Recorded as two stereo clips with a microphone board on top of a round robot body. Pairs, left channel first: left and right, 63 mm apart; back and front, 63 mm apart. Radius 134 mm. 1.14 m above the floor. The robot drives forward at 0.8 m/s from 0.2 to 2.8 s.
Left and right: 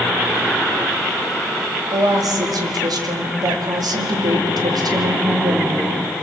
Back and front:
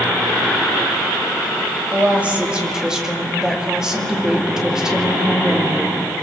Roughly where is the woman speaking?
Ahead right.